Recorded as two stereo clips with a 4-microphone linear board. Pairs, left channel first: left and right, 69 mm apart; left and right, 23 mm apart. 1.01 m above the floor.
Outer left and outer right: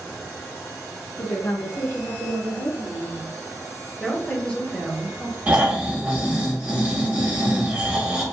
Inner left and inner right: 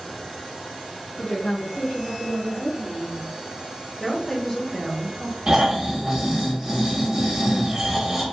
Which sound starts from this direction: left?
A woman speaking, at 1.2 s.